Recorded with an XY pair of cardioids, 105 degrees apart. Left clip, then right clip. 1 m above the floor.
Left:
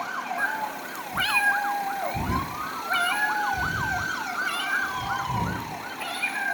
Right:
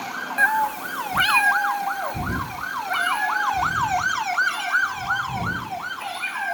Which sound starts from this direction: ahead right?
A cat meowing, at 0.4 s.